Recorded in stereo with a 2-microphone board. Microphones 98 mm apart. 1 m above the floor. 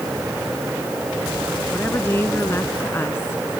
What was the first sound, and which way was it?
A woman speaking, 25° left (ahead or behind).